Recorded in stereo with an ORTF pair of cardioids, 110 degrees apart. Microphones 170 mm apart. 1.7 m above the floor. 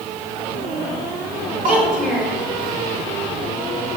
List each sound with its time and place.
1.6 s a child speaking: 55° right, 4 m